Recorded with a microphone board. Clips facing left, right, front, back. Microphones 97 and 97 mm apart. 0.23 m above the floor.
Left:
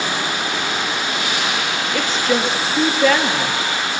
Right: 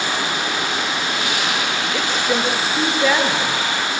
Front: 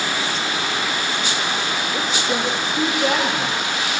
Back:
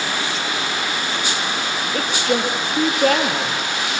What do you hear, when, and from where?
1.9 s a woman speaking: 170° right, 5 m